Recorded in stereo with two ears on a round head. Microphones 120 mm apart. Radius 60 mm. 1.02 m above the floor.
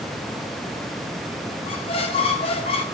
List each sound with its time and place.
1.7 s a squeak: 45° left (ahead or behind), 0.9 m